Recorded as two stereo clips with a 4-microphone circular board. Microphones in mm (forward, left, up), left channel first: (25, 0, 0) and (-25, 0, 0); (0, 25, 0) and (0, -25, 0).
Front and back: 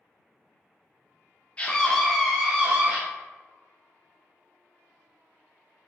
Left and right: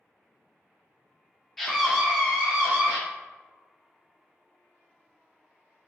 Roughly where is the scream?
Ahead.